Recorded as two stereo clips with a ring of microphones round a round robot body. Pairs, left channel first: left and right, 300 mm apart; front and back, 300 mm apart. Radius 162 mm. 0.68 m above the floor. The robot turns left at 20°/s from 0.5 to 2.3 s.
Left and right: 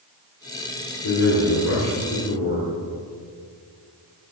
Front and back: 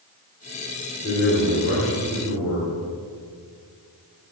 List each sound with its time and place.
1.0 s a man speaking: 60° left, 2.5 m; by 2.7 s 35° left, 2.5 m